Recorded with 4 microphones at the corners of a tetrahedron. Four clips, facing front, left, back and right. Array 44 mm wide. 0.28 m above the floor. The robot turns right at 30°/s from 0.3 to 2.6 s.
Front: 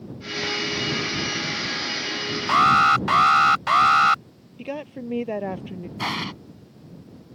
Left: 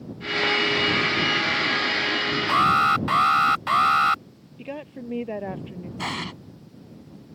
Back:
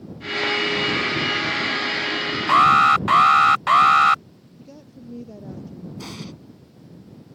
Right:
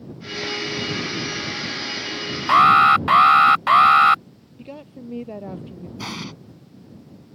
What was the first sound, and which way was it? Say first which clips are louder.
An alarm: right 7 dB, back 2 dB; 115° right.